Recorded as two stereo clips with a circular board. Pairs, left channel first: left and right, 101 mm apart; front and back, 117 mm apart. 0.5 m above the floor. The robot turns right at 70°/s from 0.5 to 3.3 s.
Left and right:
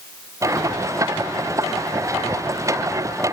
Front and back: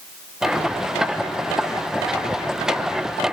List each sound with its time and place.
Only background noise.